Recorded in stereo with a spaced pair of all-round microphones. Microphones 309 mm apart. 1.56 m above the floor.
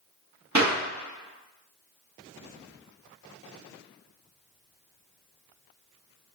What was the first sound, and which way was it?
A clap, 60° right (ahead or behind).